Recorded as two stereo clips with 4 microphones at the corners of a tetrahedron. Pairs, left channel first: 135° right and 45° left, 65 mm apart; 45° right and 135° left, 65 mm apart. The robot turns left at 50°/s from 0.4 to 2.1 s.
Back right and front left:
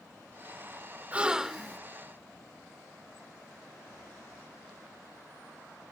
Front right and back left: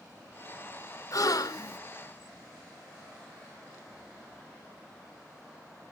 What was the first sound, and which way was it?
A gasp, 20° right.